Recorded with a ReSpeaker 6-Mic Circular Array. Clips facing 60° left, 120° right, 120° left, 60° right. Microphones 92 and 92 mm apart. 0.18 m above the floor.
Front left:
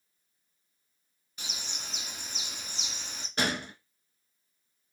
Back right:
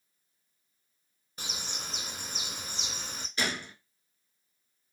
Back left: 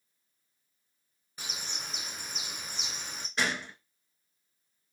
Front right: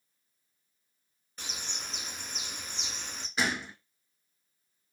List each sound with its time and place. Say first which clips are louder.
1.4 s a bird: back right 3 dB, even; 160° right, 0.6 m
3.4 s a gunshot: front left 3 dB, front right 1 dB; 25° left, 0.7 m